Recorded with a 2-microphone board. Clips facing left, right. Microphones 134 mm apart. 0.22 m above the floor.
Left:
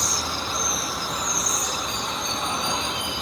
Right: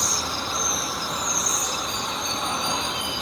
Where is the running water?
Centre (ahead or behind), 1.0 m.